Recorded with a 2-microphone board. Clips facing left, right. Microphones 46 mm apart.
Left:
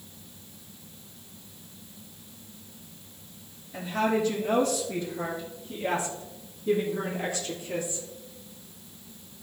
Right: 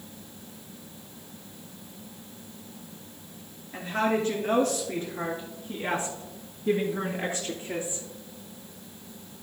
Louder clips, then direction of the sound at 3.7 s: Even; 50° right (ahead or behind).